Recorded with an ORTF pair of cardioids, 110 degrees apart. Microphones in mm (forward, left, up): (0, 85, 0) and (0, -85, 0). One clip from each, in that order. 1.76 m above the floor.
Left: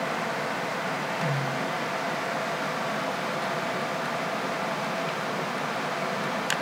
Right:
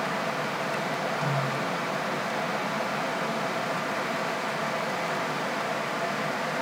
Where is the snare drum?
5° left, 7.5 m.